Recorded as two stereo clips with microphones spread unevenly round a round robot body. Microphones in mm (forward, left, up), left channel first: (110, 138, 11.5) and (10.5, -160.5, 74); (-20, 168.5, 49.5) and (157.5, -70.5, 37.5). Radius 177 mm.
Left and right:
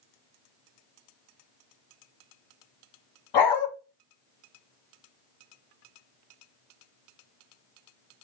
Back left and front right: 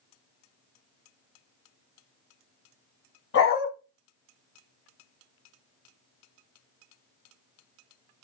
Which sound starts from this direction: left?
A dog barking, at 3.3 s.